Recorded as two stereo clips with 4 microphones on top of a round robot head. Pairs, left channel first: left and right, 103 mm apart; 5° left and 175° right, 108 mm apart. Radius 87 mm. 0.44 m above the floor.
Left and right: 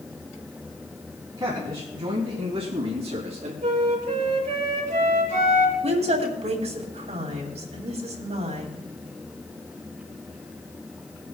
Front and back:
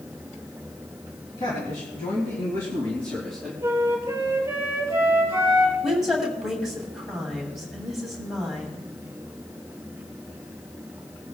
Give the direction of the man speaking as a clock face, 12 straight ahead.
1 o'clock.